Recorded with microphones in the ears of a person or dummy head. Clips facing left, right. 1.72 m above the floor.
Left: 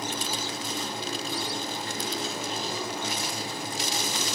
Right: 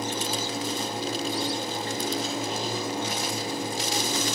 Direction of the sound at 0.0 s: 20° right (ahead or behind).